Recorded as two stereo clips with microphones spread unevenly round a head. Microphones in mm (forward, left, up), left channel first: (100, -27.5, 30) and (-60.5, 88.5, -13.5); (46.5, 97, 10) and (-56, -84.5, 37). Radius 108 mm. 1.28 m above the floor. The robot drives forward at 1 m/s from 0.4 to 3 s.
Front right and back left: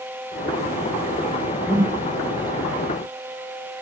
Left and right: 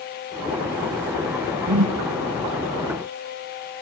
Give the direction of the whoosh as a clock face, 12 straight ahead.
4 o'clock.